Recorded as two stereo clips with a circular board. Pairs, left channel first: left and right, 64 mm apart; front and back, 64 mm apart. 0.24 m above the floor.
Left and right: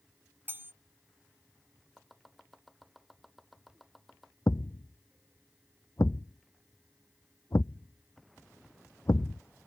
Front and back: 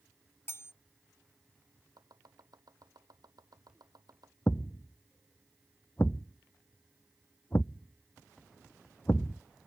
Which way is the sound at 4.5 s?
50° left.